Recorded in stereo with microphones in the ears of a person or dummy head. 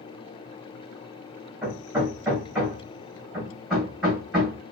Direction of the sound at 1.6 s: 5° right (ahead or behind).